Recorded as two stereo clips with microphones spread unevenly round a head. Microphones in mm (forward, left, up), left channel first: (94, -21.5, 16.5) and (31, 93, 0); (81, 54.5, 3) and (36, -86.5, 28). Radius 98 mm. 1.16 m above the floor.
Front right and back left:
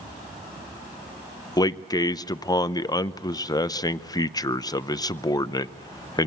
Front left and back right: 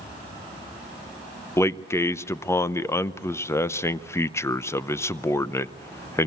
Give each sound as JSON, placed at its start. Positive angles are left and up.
{"t": 1.6, "sound": "a man speaking", "azimuth_deg": 5, "distance_m": 0.8}